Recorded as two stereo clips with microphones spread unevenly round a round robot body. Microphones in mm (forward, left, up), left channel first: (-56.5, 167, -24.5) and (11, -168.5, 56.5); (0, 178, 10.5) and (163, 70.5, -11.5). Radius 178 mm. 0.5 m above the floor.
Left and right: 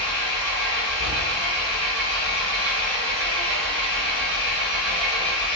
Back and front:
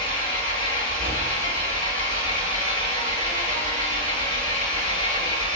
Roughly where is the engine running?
Behind right.